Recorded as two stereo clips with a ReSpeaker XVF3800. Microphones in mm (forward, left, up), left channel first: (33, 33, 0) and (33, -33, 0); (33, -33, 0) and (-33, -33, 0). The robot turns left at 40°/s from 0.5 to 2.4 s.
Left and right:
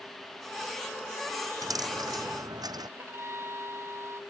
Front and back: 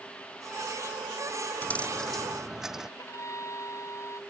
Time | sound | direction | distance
1.6 | a dropped coin | 65° right | ?
3.0 | a violin | 40° right | ?